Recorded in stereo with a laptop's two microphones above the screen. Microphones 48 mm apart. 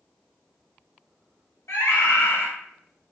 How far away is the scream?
About 0.7 m.